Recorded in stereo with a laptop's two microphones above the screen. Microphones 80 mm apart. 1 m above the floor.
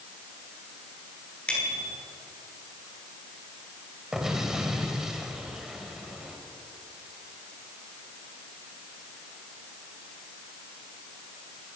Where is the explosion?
5° right (ahead or behind), 3.5 m.